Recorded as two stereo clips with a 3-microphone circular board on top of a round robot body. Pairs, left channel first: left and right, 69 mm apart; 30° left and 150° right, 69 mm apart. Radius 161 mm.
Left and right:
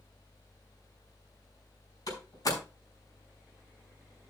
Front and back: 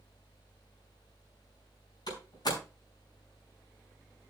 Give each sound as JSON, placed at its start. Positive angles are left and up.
{"t": 2.1, "sound": "a door slam", "azimuth_deg": 55, "distance_m": 4.5}